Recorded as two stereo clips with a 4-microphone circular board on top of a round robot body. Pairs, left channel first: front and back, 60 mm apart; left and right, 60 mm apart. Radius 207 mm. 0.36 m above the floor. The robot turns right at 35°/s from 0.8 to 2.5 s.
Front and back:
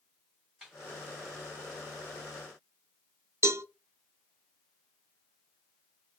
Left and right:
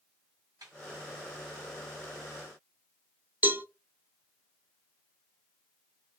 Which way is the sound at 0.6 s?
100° right.